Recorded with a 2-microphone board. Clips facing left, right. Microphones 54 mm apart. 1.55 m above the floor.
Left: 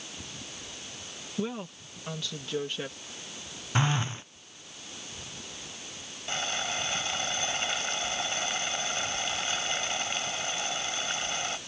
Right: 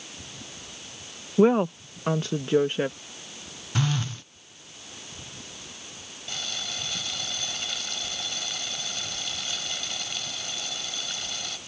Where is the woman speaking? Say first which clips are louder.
Right 15 dB; 65° right (ahead or behind); by 3.0 s 35° right (ahead or behind).